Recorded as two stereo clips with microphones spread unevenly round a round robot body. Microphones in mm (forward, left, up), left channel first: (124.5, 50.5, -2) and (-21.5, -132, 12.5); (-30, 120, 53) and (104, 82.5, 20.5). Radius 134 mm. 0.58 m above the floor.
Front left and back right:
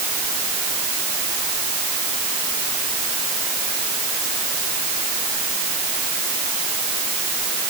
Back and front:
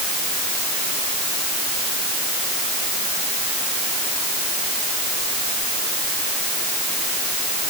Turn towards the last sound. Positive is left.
No sound to turn to.